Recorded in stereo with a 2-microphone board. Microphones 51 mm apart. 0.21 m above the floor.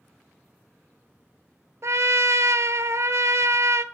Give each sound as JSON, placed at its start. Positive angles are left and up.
{"t": 1.8, "sound": "a trumpet", "side_deg": -70, "distance_m": 0.5}